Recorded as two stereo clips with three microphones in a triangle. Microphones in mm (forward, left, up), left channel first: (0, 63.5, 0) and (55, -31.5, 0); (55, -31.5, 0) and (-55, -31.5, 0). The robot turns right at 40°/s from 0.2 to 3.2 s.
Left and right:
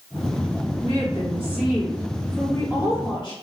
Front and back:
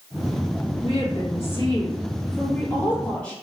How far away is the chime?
No chime in this recording.